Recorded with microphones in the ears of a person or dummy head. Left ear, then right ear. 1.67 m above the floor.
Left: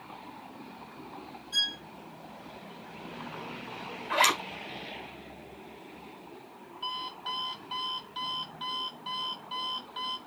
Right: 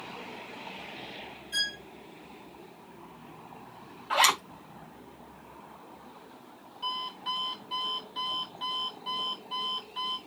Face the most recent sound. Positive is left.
turn(degrees=0)  # may be behind; listen again after turning